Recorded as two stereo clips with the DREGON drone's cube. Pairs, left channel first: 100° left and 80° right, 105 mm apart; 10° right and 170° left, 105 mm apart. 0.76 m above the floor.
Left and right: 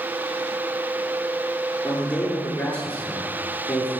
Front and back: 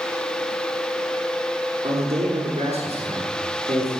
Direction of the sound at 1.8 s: 175° left.